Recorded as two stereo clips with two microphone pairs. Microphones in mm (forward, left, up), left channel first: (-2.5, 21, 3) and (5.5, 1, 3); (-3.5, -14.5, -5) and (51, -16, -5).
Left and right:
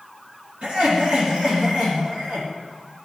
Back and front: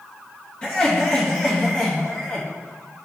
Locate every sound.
0.6 s laughter: 110° right, 3.5 m